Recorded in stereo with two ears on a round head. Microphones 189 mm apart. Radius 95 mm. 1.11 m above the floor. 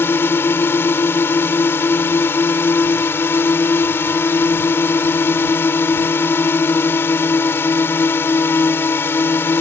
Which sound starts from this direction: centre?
A drone, at 0.0 s.